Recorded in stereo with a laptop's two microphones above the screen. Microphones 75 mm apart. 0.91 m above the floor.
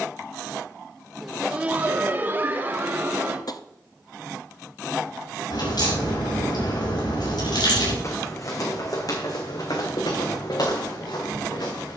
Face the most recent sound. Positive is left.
turn(degrees=75)  # may be behind; listen again after turning